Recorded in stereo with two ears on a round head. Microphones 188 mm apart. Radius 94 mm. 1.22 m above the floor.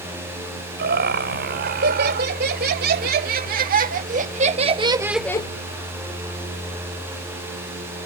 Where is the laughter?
55° right (ahead or behind); by 5.5 s 30° left (ahead or behind).